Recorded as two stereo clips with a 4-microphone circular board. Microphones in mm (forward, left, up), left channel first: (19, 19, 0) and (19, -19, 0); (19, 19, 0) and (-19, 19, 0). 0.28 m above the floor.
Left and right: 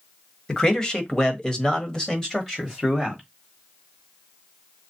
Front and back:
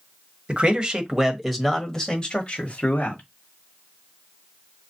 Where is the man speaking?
150° left, 1.2 m; by 3.2 s 15° left, 1.4 m.